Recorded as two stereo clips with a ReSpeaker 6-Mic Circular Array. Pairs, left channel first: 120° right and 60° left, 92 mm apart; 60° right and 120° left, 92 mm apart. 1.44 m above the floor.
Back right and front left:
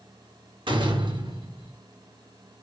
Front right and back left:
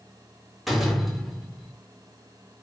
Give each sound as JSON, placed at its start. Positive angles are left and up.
{"t": 0.7, "sound": "a door slam", "azimuth_deg": 30, "distance_m": 4.0}